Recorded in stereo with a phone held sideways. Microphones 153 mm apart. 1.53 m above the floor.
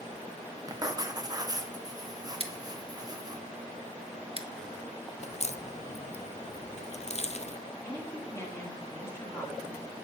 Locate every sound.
0.7 s writing: 25° right (ahead or behind), 1.0 m
2.4 s scissors: 40° right (ahead or behind), 1.0 m
5.2 s a crack: 50° left (ahead or behind), 0.5 m
7.8 s a woman speaking: 20° left (ahead or behind), 2.5 m